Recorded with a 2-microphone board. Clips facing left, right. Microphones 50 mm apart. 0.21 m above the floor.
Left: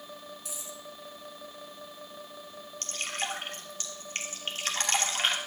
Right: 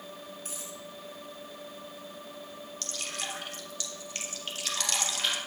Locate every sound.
0.5 s a dropped coin: 45° right (ahead or behind), 3.5 m
2.8 s dripping: 30° left (ahead or behind), 2.5 m